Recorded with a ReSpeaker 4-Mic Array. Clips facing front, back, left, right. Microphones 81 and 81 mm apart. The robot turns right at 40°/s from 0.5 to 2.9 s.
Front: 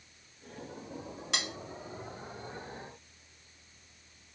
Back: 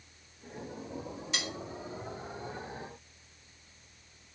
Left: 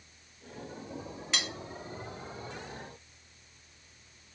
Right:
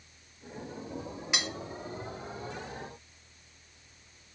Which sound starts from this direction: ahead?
Cutlery clinking, at 1.3 s.